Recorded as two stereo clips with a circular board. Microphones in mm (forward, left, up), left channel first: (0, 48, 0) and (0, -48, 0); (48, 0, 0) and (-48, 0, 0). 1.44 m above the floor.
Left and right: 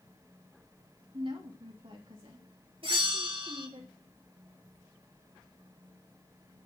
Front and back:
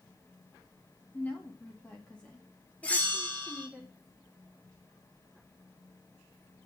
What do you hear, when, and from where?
1.1 s a woman speaking: 70° right, 2.5 m; by 3.8 s 90° right, 3.5 m
2.8 s a bell: 75° right, 3 m